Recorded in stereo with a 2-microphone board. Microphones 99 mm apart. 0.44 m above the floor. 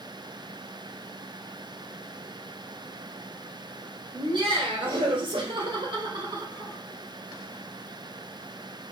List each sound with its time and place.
4.1 s laughter: 55° right (ahead or behind), 2 m; by 6.8 s 40° right (ahead or behind), 1.3 m